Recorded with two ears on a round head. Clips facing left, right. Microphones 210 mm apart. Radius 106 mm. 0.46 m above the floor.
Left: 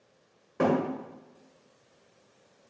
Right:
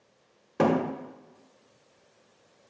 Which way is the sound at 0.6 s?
50° right (ahead or behind).